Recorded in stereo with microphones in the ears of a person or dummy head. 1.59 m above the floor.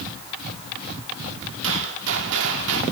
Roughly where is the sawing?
I don't hear sawing.